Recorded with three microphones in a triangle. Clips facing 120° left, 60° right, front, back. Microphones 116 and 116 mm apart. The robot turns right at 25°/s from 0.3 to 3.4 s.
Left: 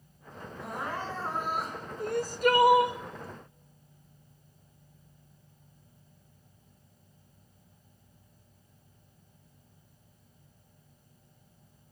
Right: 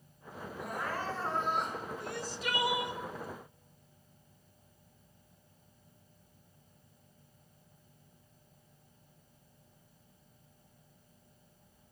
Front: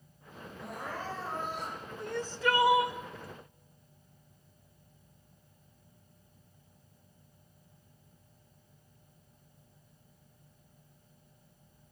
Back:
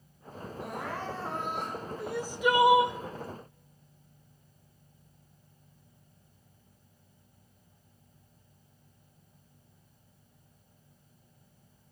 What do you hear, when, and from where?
0.6 s crying: straight behind, 3.5 m; by 1.8 s 150° right, 3.5 m
2.0 s crying: 100° left, 0.6 m; by 3.0 s 125° left, 0.6 m